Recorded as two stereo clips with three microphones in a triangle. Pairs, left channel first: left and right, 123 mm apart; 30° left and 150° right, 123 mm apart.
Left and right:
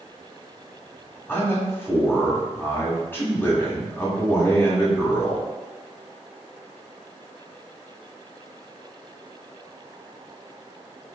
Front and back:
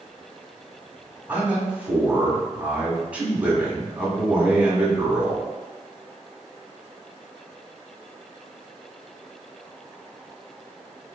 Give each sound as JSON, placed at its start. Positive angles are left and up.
{"t": 1.3, "sound": "a man speaking", "azimuth_deg": 145, "distance_m": 1.3}